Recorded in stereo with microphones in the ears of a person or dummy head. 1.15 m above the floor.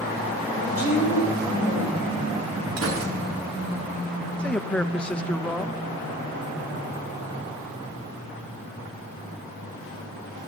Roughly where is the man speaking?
Centre.